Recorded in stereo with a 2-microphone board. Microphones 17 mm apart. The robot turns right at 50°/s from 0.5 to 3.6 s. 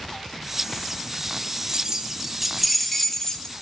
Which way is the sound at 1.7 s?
45° right (ahead or behind).